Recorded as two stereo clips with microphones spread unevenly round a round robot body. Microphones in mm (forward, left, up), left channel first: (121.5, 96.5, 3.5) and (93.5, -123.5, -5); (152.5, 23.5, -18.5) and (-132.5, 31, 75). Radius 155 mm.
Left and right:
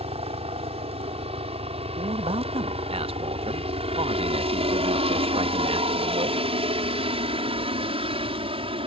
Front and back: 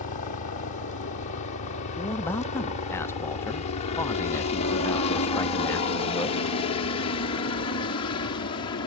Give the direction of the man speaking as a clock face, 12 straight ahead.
2 o'clock.